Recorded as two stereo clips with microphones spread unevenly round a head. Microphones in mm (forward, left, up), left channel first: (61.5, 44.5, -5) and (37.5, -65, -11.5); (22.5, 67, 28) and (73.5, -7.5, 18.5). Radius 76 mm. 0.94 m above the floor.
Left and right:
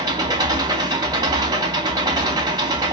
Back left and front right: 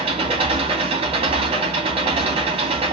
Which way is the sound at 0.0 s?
50° right.